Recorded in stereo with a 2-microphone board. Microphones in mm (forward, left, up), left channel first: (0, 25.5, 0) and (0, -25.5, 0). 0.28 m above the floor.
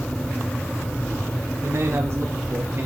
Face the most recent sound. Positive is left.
turn(degrees=-40)  # may be behind; listen again after turning